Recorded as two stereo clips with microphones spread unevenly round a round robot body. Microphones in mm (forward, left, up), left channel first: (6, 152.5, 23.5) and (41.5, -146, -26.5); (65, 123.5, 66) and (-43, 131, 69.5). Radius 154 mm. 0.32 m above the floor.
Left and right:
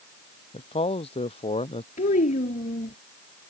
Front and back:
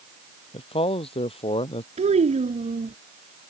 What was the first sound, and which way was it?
A man speaking, 25° left.